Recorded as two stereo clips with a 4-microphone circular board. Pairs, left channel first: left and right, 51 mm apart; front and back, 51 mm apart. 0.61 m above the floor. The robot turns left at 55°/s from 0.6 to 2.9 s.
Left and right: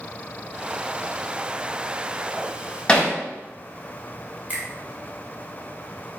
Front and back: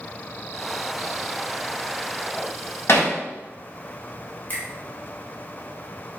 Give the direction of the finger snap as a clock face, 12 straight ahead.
1 o'clock.